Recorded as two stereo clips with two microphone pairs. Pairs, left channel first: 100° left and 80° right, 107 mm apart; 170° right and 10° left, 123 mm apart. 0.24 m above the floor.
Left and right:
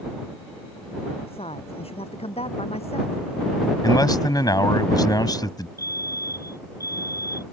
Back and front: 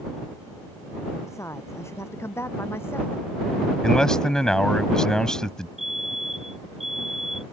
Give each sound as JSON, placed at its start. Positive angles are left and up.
{"t": 1.3, "sound": "a woman speaking", "azimuth_deg": 125}
{"t": 3.8, "sound": "a man speaking", "azimuth_deg": 110}
{"t": 5.8, "sound": "a fire alarm", "azimuth_deg": 40}